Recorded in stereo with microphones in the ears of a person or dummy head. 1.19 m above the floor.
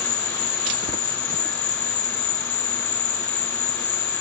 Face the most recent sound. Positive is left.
turn(degrees=55)  # may be behind; listen again after turning